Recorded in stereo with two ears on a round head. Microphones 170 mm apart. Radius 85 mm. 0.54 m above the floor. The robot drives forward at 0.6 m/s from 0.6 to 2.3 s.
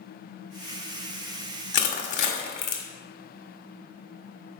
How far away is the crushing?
About 1.2 m.